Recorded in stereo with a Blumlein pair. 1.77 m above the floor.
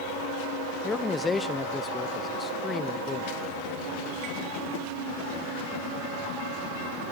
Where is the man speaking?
10° left, 0.6 m.